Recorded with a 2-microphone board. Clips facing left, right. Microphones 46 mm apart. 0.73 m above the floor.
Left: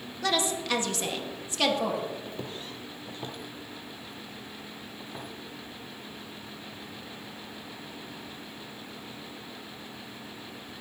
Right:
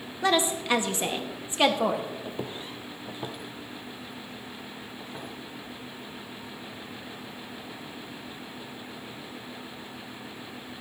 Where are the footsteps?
20° right (ahead or behind), 0.9 m; by 5.3 s centre (ahead or behind), 2.5 m.